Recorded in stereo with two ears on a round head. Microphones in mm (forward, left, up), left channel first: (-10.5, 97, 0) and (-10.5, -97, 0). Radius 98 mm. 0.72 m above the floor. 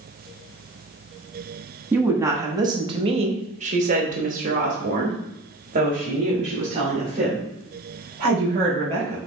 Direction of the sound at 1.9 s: 10° right (ahead or behind).